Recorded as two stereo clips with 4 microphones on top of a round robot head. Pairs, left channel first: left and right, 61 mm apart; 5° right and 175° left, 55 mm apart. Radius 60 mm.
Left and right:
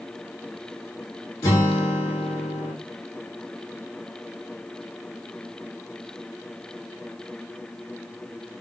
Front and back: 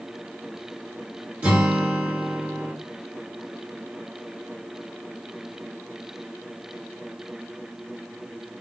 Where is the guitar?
115° left, 1.9 m.